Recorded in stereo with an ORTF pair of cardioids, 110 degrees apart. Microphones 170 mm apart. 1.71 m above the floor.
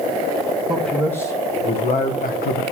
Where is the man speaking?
Straight ahead, 1.8 m; by 2.6 s 75° left, 1.5 m.